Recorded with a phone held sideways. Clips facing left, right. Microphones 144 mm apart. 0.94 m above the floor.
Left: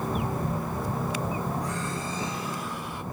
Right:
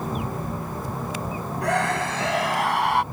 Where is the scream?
75° right (ahead or behind); by 3.0 s 80° right.